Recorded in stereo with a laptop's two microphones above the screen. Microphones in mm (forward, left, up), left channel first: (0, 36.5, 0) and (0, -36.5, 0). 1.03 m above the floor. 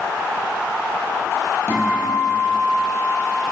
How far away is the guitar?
About 5.5 m.